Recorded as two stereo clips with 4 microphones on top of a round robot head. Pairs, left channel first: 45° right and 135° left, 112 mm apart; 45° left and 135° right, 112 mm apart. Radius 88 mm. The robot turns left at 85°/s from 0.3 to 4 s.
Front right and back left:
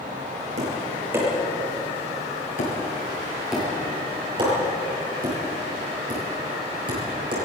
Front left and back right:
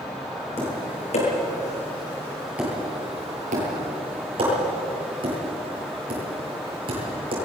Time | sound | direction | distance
0.6 | tapping | 115° left | 8.5 m